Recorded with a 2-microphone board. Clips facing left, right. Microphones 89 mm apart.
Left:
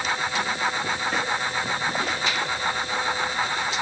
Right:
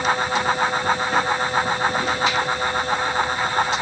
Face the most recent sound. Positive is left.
No sound to turn to.